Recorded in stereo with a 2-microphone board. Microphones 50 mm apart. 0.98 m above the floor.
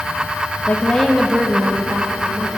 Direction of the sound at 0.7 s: 25° left (ahead or behind).